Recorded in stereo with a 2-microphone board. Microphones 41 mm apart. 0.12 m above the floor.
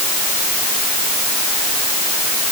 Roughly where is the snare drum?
No snare drum in this recording.